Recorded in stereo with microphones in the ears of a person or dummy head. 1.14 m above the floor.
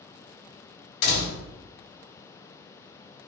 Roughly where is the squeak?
No squeak in this recording.